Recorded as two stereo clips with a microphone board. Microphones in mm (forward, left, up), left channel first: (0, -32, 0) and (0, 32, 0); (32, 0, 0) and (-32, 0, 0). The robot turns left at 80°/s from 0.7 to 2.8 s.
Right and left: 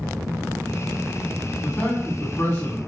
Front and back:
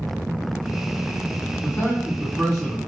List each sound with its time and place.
1.6 s a man speaking: 20° right, 1.9 m; by 2.8 s 110° right, 1.9 m